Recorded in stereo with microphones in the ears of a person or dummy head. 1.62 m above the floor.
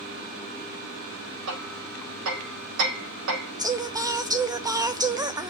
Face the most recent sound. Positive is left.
turn(degrees=-20)  # may be behind; listen again after turning